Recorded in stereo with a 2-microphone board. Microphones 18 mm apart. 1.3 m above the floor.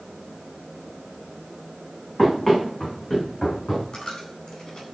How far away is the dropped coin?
About 3.5 m.